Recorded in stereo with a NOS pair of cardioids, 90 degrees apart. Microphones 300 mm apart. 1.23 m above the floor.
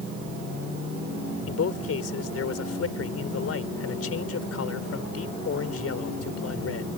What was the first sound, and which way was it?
A man speaking, 50° left.